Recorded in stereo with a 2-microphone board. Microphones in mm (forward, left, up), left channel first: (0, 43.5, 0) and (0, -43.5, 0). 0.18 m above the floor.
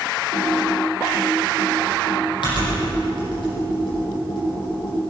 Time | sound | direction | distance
0.3 | typing on a keyboard | 60° left (ahead or behind) | 7 m